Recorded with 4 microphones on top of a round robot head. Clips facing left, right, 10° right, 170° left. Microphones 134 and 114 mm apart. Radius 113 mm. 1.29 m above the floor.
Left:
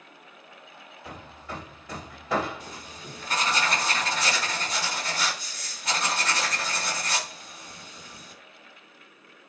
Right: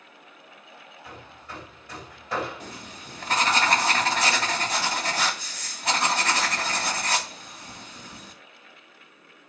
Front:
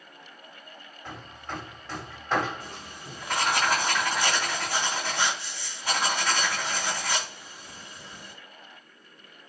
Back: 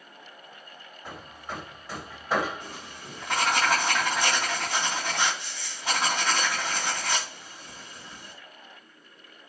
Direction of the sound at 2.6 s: 120° right.